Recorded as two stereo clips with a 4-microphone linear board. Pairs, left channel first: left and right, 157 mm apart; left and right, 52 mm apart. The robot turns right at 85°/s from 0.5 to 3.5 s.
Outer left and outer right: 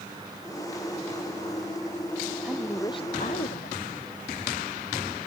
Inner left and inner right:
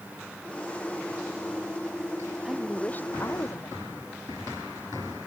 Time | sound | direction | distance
2.5 | a woman speaking | 10° right | ?